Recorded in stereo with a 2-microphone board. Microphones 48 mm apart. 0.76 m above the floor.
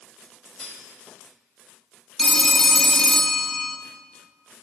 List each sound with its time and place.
0.6 s cutlery clinking: 15° left (ahead or behind), 2.0 m
2.2 s a phone ringing: 5° left (ahead or behind), 0.5 m